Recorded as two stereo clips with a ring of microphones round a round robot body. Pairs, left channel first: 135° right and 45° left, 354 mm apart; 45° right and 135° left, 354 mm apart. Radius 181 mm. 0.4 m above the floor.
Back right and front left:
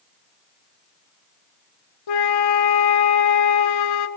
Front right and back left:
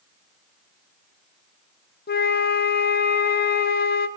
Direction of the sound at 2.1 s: 110° right.